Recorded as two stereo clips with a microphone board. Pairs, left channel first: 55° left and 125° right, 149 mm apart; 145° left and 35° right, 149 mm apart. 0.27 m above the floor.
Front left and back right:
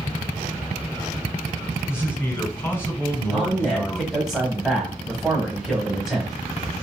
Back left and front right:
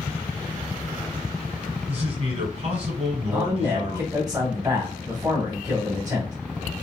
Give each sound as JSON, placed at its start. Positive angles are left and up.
{"t": 1.9, "sound": "a man speaking", "azimuth_deg": -15, "distance_m": 1.4}
{"t": 3.3, "sound": "a man speaking", "azimuth_deg": -40, "distance_m": 1.0}